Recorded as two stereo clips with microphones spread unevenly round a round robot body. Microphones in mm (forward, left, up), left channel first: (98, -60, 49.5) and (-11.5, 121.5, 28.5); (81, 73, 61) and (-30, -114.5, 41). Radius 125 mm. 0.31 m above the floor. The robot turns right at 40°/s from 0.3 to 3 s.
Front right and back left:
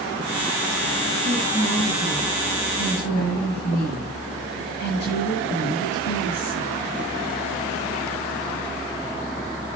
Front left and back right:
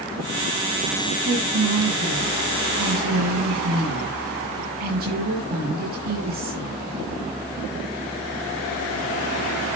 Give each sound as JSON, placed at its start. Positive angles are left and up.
{"t": 1.2, "sound": "a woman speaking", "azimuth_deg": 180, "distance_m": 7.5}